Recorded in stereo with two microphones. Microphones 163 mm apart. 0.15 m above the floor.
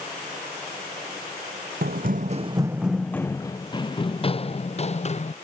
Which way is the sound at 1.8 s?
75° right (ahead or behind).